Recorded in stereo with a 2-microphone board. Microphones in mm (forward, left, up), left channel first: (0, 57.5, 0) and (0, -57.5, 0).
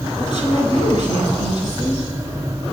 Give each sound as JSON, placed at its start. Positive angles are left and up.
{"t": 0.2, "sound": "a woman speaking", "side_deg": 40, "distance_m": 2.5}